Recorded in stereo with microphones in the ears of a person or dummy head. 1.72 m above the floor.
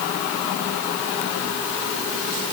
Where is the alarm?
No alarm in this recording.